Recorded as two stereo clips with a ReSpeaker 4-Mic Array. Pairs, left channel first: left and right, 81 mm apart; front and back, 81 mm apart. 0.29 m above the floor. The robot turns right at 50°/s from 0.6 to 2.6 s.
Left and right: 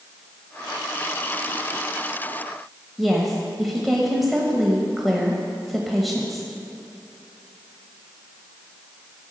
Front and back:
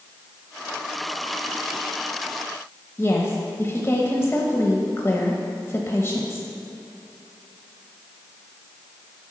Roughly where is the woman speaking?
Ahead.